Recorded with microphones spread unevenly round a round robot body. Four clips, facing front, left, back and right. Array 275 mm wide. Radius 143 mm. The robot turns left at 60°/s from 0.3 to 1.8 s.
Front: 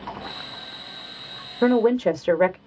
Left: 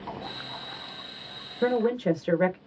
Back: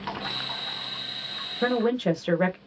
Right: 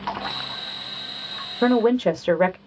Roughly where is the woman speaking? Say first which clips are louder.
Right 6 dB, front 6 dB; ahead right.